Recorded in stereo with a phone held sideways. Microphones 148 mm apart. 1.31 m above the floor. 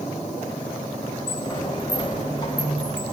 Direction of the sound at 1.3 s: 35° left (ahead or behind).